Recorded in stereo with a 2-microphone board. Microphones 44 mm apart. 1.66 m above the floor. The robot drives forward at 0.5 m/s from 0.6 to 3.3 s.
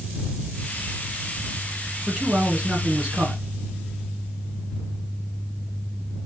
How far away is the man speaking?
About 2.5 m.